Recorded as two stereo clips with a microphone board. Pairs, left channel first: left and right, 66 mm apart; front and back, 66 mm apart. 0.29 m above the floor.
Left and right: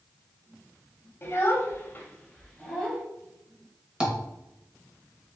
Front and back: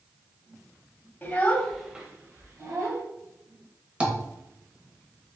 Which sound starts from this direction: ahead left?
A child speaking, at 1.2 s.